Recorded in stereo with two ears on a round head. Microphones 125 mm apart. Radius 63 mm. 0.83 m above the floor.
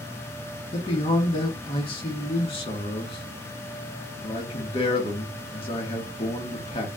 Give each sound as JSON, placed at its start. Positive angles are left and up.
{"t": 0.7, "sound": "a man speaking", "side_deg": 40, "distance_m": 1.5}